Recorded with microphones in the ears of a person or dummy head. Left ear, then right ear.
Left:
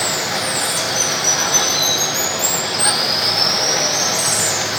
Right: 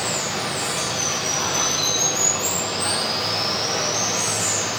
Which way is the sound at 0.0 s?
35° left (ahead or behind).